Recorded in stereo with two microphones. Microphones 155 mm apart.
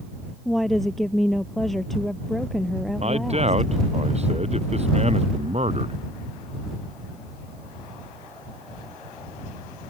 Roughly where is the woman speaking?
Centre.